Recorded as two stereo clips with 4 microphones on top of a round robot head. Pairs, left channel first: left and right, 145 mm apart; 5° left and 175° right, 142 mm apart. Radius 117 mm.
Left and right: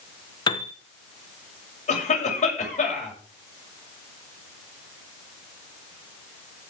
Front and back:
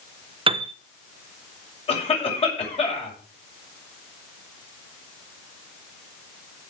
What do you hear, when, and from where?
0.5 s a piano: 145° left, 1.0 m
1.9 s a cough: 50° left, 7 m